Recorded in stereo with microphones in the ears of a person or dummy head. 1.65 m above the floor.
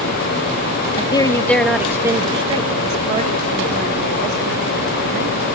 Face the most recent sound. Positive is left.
turn(degrees=-60)  # may be behind; listen again after turning